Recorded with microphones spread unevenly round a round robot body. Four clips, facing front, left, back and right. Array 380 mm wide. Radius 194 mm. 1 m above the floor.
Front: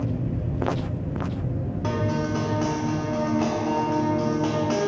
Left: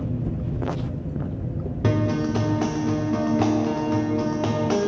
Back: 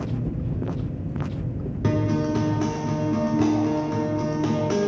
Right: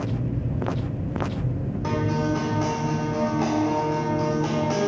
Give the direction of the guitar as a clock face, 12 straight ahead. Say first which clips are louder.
Left 2 dB, back 3 dB; 7 o'clock.